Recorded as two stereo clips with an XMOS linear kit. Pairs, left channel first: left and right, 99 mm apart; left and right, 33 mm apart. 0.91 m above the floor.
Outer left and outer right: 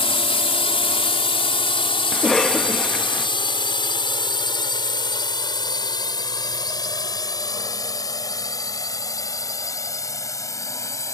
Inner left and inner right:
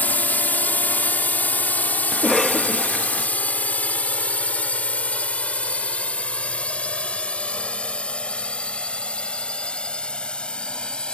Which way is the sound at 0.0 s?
65° left (ahead or behind).